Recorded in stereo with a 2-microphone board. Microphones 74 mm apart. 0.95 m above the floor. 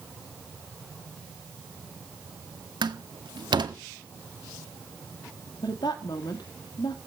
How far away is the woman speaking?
About 2 m.